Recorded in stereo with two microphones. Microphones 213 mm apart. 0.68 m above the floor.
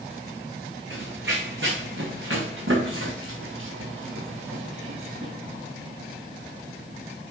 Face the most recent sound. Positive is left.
turn(degrees=-80)